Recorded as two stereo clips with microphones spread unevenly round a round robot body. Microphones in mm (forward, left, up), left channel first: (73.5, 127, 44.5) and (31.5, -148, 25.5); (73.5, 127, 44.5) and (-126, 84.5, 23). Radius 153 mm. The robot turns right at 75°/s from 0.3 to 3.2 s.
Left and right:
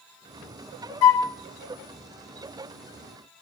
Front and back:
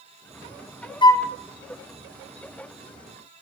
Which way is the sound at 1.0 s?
80° left.